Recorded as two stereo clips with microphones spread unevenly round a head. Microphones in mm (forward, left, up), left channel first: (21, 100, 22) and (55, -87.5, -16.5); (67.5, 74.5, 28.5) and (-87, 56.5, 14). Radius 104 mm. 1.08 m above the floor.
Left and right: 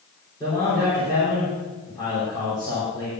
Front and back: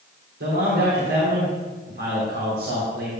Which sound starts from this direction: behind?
A man speaking, at 0.4 s.